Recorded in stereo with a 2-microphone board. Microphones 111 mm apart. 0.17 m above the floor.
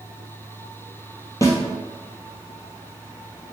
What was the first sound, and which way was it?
A snare drum, 30° left (ahead or behind).